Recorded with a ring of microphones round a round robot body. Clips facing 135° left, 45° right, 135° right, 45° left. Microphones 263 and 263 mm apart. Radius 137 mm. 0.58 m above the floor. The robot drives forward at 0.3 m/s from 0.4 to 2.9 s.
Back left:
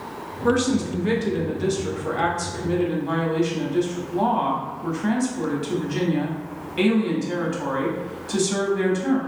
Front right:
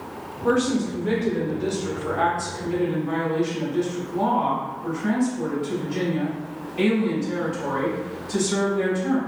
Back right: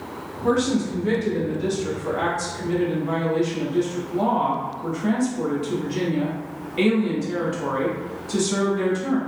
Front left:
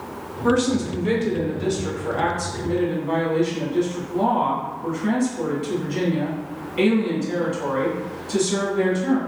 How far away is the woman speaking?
About 0.8 m.